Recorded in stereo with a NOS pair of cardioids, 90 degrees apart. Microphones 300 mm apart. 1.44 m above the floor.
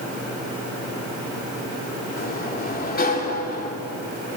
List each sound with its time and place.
2.2 s a sliding door: 30° left, 3.5 m